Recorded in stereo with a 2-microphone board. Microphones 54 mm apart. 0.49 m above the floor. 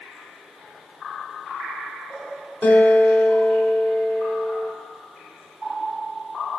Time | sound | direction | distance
2.6 | a guitar | 25° left (ahead or behind) | 1.1 m